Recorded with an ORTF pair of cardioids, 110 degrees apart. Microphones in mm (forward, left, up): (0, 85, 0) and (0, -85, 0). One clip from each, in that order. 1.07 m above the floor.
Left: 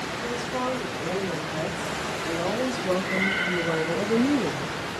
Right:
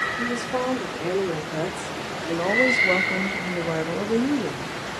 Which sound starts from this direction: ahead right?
A woman speaking, at 0.2 s.